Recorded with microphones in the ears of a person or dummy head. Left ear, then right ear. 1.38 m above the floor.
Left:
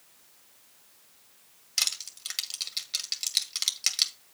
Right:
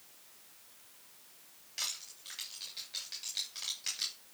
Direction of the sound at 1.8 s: 50° left (ahead or behind).